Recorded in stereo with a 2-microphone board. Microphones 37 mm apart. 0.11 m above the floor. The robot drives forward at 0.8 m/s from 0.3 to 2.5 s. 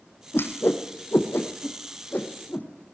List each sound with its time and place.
0.3 s a whoosh: 75° left (ahead or behind), 2.5 m; by 2.7 s 50° left (ahead or behind), 3 m